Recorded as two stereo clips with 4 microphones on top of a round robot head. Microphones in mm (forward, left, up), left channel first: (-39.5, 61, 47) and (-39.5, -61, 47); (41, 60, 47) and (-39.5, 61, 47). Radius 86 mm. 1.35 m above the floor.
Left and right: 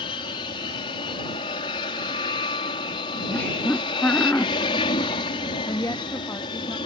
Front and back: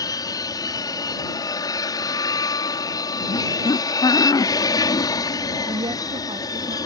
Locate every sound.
0.0 s an aircraft: 35° left
3.3 s laughter: 15° left
5.7 s a woman speaking: 160° left